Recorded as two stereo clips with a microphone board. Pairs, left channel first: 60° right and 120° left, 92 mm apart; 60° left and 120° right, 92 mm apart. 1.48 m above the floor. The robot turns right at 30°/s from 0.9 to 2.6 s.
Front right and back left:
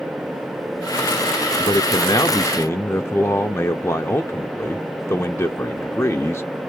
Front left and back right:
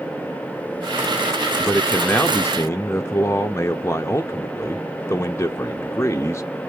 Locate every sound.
1.6 s a man speaking: 30° right, 0.6 m; by 6.7 s straight ahead, 0.6 m